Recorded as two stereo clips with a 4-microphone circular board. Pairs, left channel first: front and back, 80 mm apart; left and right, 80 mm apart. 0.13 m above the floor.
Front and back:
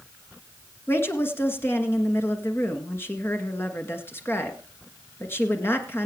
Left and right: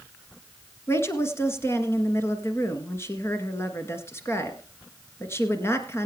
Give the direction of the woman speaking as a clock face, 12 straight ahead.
10 o'clock.